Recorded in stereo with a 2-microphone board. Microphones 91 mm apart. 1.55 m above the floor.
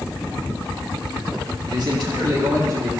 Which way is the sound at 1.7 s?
55° right (ahead or behind).